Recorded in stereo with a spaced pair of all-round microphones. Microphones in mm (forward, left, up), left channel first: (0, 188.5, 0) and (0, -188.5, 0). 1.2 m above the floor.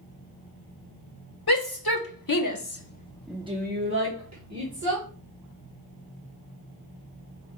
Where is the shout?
75° left (ahead or behind), 1.5 m; by 5.1 s 50° right (ahead or behind), 1.8 m.